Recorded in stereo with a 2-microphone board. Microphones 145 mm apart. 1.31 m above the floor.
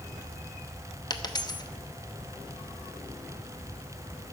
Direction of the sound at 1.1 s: 30° left (ahead or behind).